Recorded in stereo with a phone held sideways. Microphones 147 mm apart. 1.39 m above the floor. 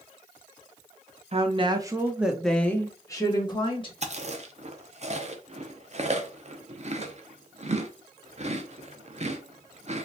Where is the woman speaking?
45° right (ahead or behind), 0.8 m; by 3.9 s 35° left (ahead or behind), 1.4 m.